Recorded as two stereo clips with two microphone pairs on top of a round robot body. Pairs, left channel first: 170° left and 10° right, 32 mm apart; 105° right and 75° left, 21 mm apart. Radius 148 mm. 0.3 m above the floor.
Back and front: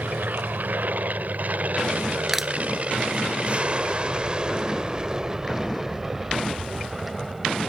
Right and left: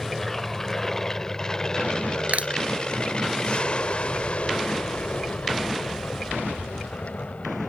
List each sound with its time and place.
0.0 s an aircraft: 15° right; by 7.7 s 100° right
2.3 s crushing: 70° left